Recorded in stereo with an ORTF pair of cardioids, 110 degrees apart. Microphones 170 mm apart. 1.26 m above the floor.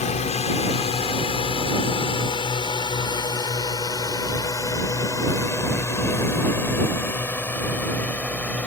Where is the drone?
45° left; by 8.7 s 10° left.